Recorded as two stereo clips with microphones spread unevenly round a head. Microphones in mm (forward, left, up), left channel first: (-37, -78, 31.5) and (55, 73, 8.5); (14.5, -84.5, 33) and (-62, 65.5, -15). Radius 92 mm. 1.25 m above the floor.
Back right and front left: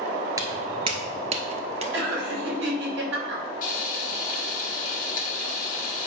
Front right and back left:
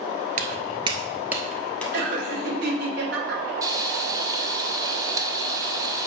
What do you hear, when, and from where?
0.4 s footsteps: 125° left, 1.3 m; by 1.8 s 5° left, 1.8 m
1.9 s laughter: 85° left, 4.5 m
3.6 s frying: 165° right, 1.6 m